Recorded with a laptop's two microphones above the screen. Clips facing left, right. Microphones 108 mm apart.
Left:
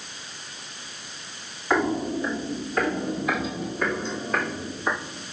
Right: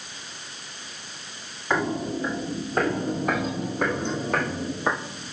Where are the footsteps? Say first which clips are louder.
Left 2 dB; 5° right (ahead or behind), 1.6 m; by 5.3 s 65° right (ahead or behind), 3.5 m.